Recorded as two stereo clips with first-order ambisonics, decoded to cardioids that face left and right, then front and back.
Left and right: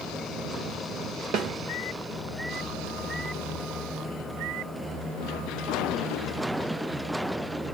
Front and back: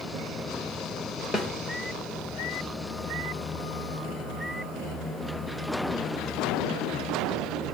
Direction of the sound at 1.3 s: 75° right.